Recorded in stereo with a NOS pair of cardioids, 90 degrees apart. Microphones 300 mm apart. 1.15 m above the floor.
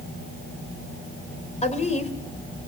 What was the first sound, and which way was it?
A woman speaking, 20° left.